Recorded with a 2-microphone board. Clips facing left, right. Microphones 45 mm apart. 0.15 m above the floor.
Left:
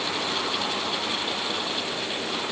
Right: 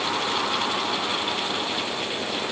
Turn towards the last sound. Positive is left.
No sound to turn to.